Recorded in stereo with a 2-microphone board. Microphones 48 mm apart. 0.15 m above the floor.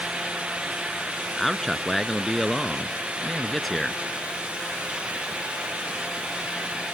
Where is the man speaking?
5° left (ahead or behind).